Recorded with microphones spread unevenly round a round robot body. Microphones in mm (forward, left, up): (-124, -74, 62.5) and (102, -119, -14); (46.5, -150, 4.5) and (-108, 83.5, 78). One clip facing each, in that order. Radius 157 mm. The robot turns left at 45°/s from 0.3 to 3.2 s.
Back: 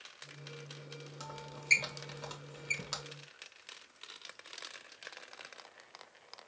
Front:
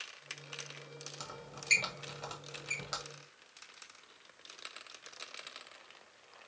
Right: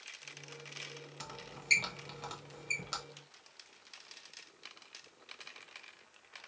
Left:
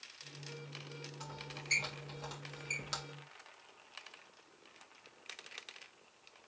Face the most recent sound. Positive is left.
turn(degrees=-150)